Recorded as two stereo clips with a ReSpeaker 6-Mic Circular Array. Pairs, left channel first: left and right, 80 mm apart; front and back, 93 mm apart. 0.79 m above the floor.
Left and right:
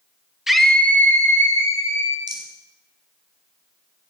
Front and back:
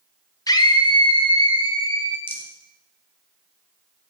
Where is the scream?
5° right, 0.8 m; by 2.2 s 40° left, 2 m.